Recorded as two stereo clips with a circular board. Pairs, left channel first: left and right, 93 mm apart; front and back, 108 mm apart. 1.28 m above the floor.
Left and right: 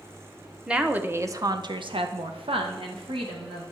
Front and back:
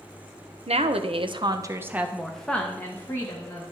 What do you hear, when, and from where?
0.7 s a woman speaking: 170° right, 0.8 m; by 3.6 s 60° right, 1.3 m